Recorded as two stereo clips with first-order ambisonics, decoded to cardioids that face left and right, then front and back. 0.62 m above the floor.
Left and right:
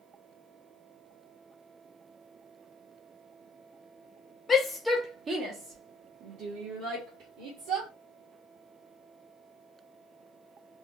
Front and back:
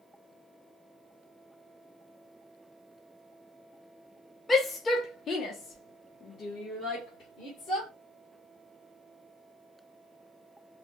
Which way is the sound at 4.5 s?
50° left.